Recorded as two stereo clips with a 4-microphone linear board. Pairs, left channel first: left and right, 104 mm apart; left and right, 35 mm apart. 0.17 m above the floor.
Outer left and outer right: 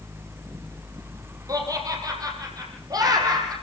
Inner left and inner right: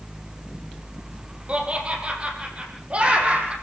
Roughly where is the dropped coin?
I don't hear a dropped coin.